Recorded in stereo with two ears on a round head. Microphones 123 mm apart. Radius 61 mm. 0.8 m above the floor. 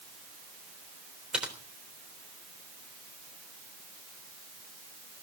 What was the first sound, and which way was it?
Typing on a keyboard, 5° right (ahead or behind).